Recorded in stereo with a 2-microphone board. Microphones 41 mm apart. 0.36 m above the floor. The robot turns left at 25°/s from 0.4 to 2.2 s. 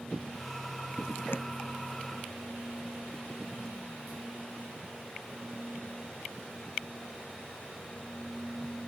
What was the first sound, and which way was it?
Tapping, 70° left (ahead or behind).